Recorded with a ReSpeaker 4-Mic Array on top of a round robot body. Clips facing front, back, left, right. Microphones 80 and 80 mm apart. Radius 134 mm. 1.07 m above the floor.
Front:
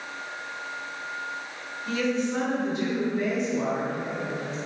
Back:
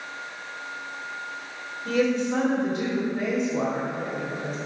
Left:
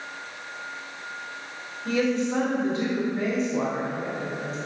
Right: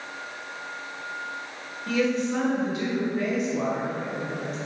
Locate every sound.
1.9 s a woman speaking: 145° left, 2.5 m